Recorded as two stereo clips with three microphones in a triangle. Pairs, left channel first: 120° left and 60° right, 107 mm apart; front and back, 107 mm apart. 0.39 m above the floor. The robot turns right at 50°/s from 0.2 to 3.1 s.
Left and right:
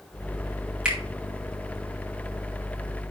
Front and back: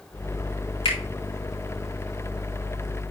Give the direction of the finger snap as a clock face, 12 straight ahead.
11 o'clock.